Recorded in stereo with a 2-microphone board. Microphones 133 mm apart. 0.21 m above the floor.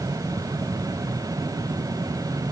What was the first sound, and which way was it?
Only background noise.